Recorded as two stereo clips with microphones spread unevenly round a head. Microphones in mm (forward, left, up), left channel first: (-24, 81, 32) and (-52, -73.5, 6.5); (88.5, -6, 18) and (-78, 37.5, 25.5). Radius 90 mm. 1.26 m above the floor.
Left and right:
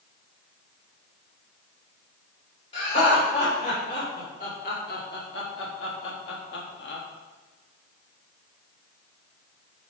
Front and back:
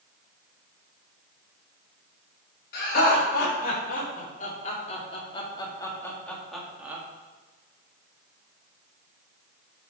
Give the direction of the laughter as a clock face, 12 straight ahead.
11 o'clock.